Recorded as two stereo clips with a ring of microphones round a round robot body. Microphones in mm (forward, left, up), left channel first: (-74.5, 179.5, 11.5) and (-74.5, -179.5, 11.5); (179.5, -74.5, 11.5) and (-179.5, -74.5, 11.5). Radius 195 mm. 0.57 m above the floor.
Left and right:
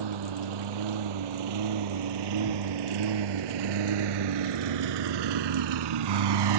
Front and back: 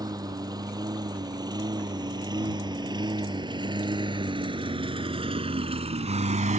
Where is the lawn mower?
100° right; by 6.6 s 110° right.